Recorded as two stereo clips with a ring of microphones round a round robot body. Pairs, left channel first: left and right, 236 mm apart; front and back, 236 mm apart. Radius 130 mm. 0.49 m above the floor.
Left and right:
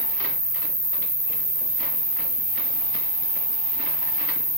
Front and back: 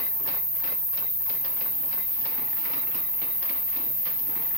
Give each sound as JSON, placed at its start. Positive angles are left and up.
{"t": 0.0, "sound": "an insect", "azimuth_deg": -50, "distance_m": 1.8}